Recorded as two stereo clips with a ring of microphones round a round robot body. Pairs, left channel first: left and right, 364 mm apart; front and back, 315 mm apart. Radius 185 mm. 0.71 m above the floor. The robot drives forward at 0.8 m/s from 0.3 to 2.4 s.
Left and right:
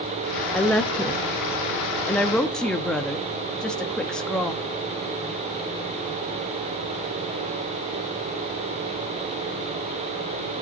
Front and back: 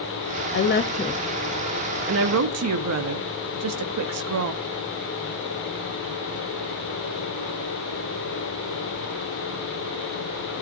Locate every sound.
0.5 s a woman speaking: 5° left, 1.0 m; by 4.6 s 175° left, 1.2 m